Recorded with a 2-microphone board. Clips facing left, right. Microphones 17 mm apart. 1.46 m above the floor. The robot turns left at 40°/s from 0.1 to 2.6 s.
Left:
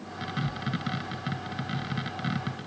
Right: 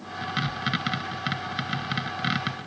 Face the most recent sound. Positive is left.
No sound to turn to.